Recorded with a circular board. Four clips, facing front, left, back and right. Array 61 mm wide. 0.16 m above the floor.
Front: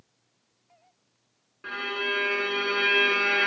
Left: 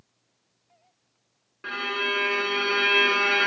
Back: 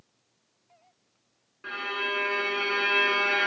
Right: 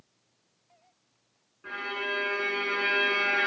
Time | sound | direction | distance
1.6 | a violin | 85° left | 0.8 m